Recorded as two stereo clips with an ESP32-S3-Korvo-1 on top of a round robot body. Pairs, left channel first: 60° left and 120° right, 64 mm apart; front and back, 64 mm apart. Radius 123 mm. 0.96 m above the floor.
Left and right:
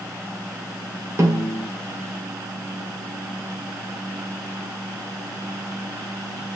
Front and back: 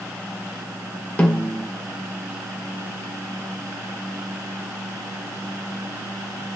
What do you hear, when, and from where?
1.2 s a snare drum: 70° right, 2.5 m